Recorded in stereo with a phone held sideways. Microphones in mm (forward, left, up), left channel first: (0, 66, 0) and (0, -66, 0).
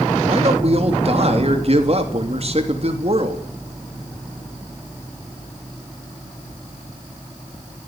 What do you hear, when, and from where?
0.3 s a man speaking: 50° right (ahead or behind), 3 m